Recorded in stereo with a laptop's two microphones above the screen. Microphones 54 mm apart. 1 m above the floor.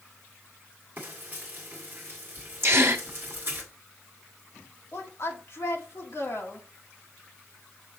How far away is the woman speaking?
About 1.8 m.